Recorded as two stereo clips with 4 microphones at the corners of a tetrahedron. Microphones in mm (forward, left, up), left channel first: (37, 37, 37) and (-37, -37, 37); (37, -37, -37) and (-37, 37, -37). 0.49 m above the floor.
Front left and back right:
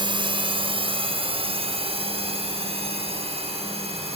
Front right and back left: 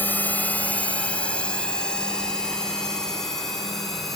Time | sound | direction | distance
0.0 | a drone | 115° right | ?